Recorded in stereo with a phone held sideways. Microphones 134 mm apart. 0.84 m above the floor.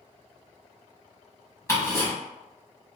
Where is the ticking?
20° left (ahead or behind), 1.4 m.